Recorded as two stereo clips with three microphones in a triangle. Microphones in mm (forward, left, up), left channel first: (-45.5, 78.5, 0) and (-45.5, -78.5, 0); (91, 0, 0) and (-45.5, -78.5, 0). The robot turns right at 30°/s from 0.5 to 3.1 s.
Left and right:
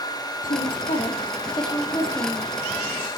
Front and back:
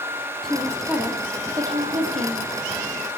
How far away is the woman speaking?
About 4 m.